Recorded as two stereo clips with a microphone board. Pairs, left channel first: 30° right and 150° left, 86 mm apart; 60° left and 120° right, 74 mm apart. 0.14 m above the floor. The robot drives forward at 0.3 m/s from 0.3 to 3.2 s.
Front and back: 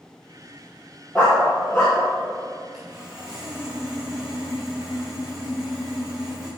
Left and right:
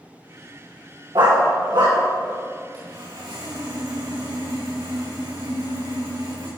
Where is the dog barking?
105° right, 4 m; by 2.0 s 110° right, 4 m.